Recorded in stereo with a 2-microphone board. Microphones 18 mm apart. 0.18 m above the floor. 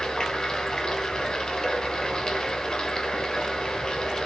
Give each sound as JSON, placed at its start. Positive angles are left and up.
{"t": 0.0, "sound": "running water", "side_deg": 45, "distance_m": 3.0}